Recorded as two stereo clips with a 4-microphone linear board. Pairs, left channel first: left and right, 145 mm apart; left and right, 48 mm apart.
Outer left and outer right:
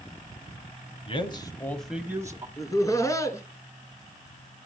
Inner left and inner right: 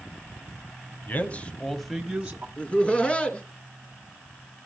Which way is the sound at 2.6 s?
20° left (ahead or behind).